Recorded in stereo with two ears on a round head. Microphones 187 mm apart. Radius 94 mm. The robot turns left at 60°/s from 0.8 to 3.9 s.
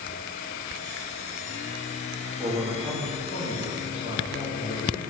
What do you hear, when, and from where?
2.4 s a man speaking: 165° right, 2 m; by 5.0 s 105° left, 2 m